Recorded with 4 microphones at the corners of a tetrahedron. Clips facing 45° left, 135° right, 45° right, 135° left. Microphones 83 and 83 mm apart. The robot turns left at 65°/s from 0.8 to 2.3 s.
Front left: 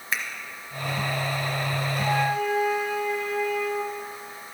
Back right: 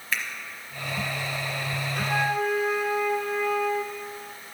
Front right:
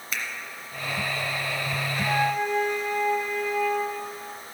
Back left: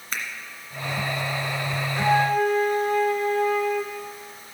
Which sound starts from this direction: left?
A finger snap, at 0.1 s.